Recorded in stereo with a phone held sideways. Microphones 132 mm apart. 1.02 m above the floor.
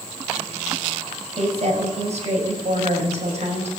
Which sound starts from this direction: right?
A woman speaking, at 1.4 s.